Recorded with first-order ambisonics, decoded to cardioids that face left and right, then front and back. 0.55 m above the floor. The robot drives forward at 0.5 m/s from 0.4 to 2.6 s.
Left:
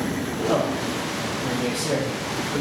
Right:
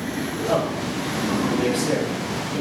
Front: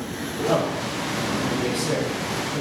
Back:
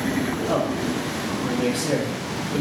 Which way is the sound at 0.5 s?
Straight ahead.